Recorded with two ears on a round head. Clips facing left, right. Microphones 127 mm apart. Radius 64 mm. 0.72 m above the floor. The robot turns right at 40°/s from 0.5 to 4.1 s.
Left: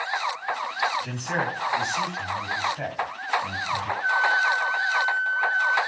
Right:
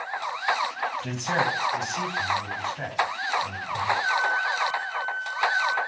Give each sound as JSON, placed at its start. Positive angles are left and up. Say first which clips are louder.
{"t": 1.0, "sound": "a man speaking", "louder": "right 2 dB", "azimuth_deg": -55, "distance_m": 4.5}
{"t": 4.0, "sound": "a flute", "louder": "left 2 dB", "side_deg": 60, "distance_m": 4.0}